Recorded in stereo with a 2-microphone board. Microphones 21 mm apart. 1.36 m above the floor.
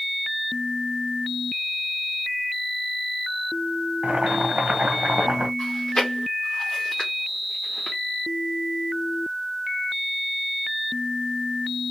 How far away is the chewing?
About 1.8 m.